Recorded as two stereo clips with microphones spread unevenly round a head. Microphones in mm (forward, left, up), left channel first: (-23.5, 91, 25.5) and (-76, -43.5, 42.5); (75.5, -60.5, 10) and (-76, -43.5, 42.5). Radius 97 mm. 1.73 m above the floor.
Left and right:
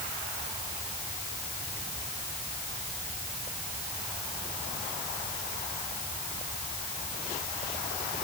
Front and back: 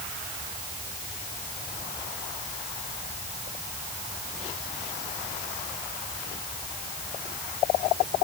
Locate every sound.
Only background noise.